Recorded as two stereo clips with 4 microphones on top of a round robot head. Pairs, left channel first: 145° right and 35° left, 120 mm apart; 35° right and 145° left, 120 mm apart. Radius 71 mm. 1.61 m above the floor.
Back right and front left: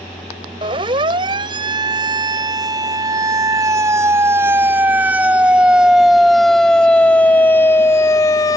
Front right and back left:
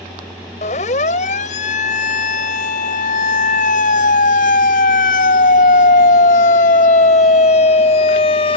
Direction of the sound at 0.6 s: 10° right.